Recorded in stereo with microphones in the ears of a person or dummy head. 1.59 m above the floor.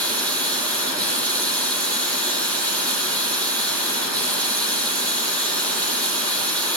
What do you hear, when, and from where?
0.0 s running water: 10° left (ahead or behind), 1.7 m